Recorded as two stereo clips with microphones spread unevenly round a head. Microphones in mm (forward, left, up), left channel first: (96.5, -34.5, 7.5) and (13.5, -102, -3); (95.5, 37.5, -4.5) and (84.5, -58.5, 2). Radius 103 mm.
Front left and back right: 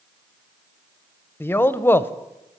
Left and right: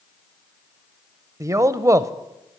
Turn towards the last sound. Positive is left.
turn(degrees=-35)